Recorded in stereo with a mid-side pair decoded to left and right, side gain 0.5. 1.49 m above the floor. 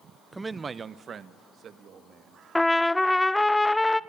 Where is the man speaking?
10° right, 0.6 m; by 2.4 s 55° right, 2.5 m.